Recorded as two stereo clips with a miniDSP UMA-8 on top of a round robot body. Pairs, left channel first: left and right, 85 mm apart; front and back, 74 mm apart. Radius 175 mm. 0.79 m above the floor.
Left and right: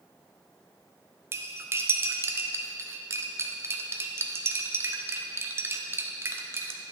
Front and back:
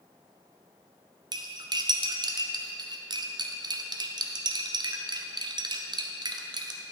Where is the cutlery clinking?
155° right, 0.5 m.